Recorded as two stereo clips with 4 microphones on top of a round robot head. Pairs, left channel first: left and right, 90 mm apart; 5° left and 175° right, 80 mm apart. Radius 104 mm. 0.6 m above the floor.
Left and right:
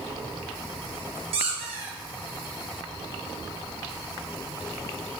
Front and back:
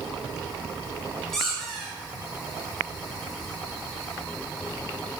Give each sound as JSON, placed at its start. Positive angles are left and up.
{"t": 1.3, "sound": "a squeak", "azimuth_deg": -85, "distance_m": 1.6}